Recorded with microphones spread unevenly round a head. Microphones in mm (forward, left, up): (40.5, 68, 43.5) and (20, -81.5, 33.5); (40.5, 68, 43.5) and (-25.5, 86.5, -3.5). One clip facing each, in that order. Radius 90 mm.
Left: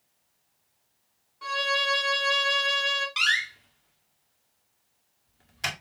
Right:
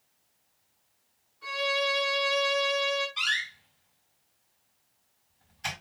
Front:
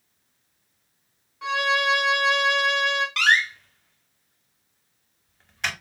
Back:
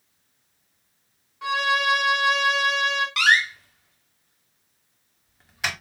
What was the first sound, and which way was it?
A violin, 70° left.